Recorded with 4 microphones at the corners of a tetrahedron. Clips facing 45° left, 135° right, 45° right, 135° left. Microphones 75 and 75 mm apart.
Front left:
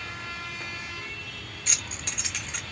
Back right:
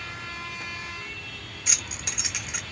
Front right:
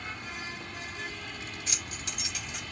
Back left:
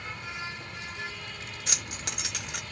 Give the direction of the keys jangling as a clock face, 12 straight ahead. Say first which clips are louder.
Back right 1 dB, back left 2 dB; 7 o'clock.